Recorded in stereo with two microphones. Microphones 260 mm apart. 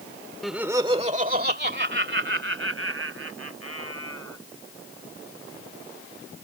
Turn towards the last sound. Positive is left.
turn(degrees=-65)  # may be behind; listen again after turning